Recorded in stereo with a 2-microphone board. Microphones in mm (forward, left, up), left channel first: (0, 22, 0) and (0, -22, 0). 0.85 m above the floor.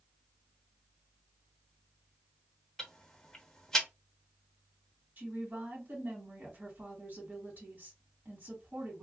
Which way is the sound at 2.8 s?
10° left (ahead or behind).